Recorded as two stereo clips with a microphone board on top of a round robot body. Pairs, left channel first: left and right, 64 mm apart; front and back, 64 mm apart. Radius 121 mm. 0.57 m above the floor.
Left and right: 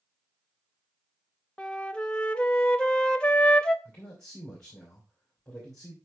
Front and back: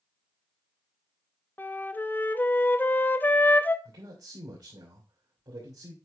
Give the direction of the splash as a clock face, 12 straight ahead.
No splash in this recording.